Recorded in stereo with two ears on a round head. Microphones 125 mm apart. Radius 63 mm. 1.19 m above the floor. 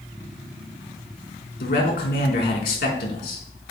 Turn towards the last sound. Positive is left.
turn(degrees=75)  # may be behind; listen again after turning